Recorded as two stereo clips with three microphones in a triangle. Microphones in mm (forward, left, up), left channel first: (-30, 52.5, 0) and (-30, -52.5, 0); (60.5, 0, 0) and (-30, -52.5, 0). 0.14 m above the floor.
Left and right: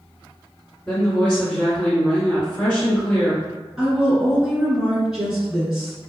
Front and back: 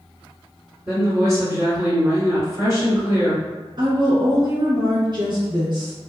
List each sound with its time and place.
0.9 s a woman speaking: 170° left, 2.0 m
3.8 s a woman speaking: 175° right, 1.6 m